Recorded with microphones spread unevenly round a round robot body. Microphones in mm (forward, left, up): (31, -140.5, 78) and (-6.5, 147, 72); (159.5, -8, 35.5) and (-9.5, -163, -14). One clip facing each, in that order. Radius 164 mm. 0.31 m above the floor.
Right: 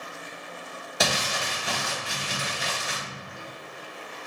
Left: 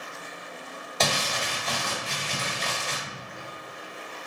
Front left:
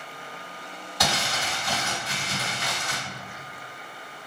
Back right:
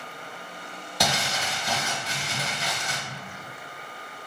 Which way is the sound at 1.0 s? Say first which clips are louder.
Even, back right 1 dB; 160° right.